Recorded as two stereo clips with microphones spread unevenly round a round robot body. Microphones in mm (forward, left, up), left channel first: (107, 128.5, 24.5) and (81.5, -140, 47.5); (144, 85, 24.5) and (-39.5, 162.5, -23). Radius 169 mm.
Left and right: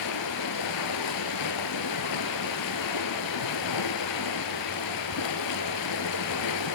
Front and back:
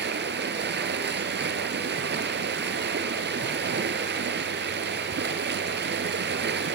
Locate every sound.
0.0 s running water: 115° left, 0.9 m